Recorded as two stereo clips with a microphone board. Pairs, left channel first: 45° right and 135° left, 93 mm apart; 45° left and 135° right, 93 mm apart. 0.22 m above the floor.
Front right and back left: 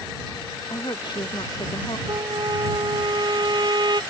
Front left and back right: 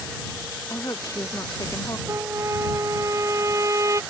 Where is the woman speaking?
10° right.